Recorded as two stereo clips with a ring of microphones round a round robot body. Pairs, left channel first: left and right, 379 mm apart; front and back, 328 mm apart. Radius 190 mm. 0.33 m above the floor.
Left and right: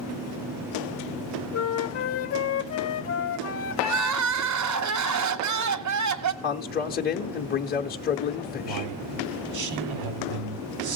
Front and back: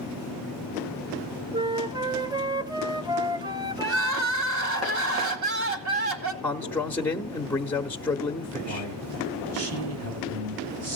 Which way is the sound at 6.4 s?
80° left.